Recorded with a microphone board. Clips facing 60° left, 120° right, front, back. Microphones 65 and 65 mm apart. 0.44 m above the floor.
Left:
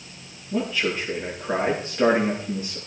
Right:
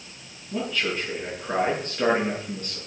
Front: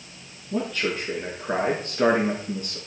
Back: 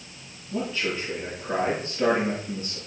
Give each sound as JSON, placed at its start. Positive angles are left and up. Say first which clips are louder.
{"t": 0.5, "sound": "a man speaking", "louder": "left 2 dB, front 2 dB", "azimuth_deg": -20, "distance_m": 5.5}